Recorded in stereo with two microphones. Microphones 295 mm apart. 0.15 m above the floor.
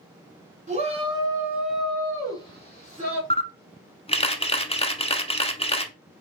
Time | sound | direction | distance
0.7 | a shout | 25° right (ahead or behind) | 1.6 m
3.3 | a camera shutter | 20° left (ahead or behind) | 0.6 m